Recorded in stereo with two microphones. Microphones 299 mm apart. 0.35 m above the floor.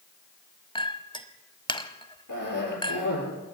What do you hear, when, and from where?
0.8 s a clink: 15° left (ahead or behind), 1.2 m
2.3 s a cough: 80° left, 8.5 m